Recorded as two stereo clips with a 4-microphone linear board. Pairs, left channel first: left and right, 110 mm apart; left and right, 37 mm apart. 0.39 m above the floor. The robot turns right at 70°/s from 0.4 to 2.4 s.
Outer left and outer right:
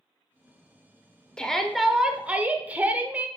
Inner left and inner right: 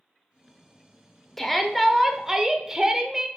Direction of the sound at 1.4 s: 10° left (ahead or behind).